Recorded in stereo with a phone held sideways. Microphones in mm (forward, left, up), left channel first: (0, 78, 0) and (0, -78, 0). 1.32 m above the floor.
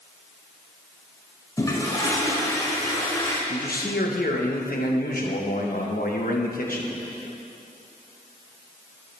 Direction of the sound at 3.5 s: 70° left (ahead or behind).